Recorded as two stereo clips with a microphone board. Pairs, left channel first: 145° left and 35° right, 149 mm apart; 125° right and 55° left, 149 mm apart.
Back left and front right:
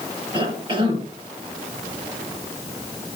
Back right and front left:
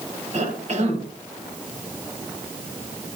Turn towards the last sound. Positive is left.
turn(degrees=20)